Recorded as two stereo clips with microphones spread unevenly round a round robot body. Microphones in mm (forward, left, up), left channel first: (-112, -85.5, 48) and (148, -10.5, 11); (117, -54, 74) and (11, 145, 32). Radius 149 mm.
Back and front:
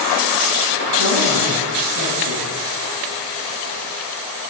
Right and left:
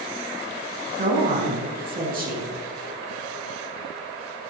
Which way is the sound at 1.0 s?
70° left.